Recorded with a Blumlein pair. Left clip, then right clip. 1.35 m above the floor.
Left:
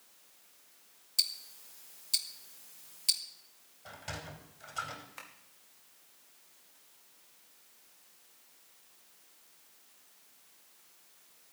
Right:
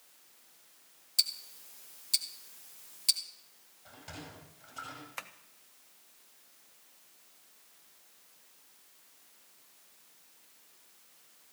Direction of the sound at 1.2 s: Straight ahead.